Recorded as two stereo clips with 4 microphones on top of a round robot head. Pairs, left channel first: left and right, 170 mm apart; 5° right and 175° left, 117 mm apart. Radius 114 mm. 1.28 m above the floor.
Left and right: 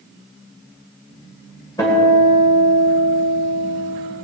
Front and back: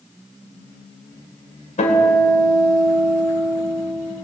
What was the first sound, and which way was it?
A guitar, 15° left.